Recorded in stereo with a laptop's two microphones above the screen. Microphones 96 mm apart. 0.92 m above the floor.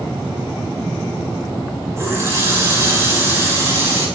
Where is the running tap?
30° right (ahead or behind), 5 m.